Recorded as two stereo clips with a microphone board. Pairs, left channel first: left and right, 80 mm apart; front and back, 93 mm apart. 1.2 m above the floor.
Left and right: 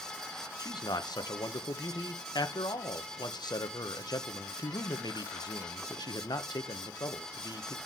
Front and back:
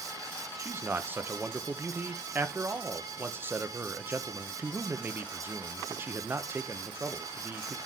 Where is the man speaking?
115° left, 1.0 m.